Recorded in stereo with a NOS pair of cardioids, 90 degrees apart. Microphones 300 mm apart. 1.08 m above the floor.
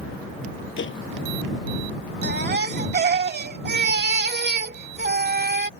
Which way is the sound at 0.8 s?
40° left.